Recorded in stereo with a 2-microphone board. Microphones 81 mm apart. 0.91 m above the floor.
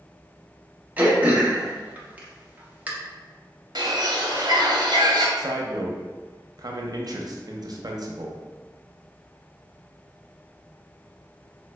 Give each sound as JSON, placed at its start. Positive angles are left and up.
{"t": 1.0, "sound": "throat clearing", "side_deg": -20, "distance_m": 0.7}
{"t": 3.8, "sound": "a bird", "side_deg": -60, "distance_m": 0.6}
{"t": 5.4, "sound": "a man speaking", "side_deg": -55, "distance_m": 0.5}